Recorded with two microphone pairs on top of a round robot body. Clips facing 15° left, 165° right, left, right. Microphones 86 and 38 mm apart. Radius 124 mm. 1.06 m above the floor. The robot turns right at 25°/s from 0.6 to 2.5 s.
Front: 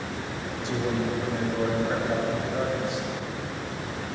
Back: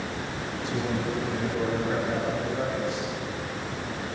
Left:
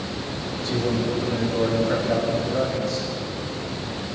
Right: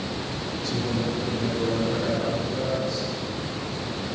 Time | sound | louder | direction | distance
0.6 | a man speaking | front 2 dB, left 4 dB | 35° left | 8 m